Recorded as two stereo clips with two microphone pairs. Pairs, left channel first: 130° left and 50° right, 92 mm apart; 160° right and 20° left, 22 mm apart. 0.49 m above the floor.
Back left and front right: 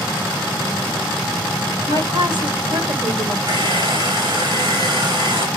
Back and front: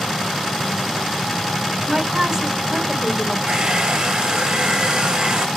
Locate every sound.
1.9 s a woman speaking: 30° right, 2 m
3.5 s a hair dryer: 15° right, 2.5 m